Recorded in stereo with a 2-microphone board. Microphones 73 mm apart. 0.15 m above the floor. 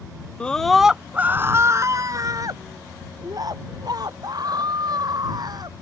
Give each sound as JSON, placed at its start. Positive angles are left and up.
{"t": 0.4, "sound": "a scream", "side_deg": 15}